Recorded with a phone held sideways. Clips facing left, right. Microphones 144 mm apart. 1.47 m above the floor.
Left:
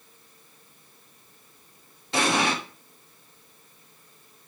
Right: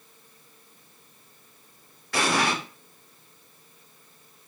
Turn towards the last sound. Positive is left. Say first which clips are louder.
# left 1 dB
turn(degrees=25)  # may be behind; listen again after turning